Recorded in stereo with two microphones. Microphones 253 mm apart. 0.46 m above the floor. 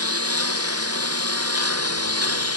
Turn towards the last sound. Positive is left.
turn(degrees=-75)  # may be behind; listen again after turning